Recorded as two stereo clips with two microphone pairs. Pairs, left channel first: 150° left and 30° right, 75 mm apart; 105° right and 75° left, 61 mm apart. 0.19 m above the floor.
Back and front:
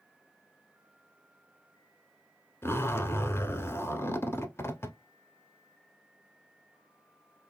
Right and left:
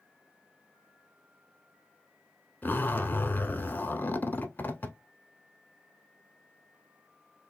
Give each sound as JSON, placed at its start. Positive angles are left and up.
{"t": 2.6, "sound": "a zipper", "azimuth_deg": -160, "distance_m": 0.7}